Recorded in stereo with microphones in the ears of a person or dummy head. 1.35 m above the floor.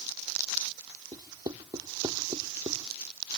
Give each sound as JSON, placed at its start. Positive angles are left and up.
{"t": 1.1, "sound": "writing", "side_deg": -20}